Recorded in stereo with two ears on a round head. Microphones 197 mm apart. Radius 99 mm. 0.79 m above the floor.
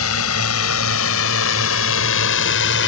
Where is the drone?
75° left (ahead or behind); by 2.9 s 55° left (ahead or behind).